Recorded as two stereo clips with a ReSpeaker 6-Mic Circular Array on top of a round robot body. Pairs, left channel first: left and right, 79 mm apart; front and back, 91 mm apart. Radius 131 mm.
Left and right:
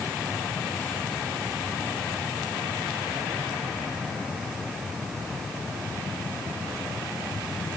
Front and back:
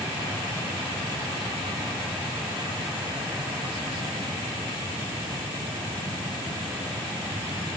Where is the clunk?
No clunk in this recording.